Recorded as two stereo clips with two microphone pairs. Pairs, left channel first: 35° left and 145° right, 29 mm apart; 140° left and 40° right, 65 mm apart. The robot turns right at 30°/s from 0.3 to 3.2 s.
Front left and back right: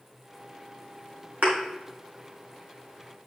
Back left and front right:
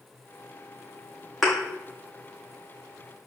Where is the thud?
130° right, 2.5 m; by 1.6 s 125° right, 2.5 m.